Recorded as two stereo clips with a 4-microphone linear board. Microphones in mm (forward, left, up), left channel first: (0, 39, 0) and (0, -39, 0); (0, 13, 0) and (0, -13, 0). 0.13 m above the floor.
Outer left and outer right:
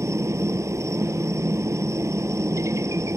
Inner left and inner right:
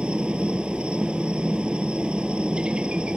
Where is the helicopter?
40° right (ahead or behind).